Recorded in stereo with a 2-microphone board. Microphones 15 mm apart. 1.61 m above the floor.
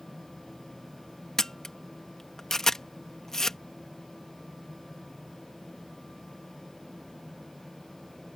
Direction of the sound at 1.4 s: 35° left (ahead or behind).